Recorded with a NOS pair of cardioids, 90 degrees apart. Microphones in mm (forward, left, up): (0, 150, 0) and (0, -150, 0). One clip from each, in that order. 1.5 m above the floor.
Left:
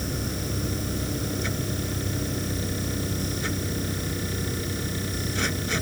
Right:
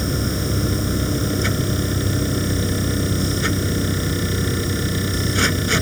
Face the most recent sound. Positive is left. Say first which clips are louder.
# right 7 dB
turn(degrees=-55)